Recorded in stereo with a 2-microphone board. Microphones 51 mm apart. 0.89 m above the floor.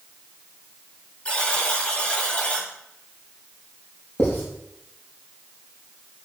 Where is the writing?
40° left (ahead or behind), 5 m.